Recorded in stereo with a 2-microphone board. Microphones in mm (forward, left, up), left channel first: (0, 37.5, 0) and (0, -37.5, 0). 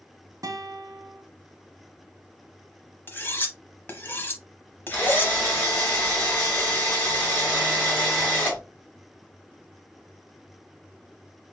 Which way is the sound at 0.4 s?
60° right (ahead or behind).